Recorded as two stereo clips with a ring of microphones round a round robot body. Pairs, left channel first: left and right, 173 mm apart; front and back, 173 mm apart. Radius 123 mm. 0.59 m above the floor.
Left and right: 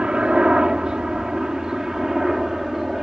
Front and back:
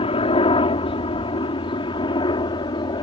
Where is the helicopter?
10° right; by 3.0 s 5° right.